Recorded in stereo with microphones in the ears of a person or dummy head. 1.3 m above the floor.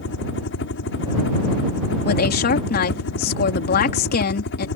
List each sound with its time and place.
0.0 s a helicopter: 65° left (ahead or behind)
2.0 s a woman speaking: 50° left (ahead or behind)